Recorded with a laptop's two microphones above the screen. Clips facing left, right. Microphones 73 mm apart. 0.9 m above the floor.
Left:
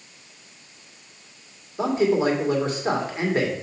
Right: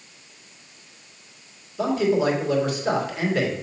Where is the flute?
No flute in this recording.